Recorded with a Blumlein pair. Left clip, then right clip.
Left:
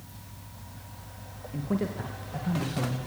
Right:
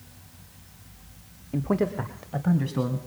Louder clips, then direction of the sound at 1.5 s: Right 6 dB; 45° right.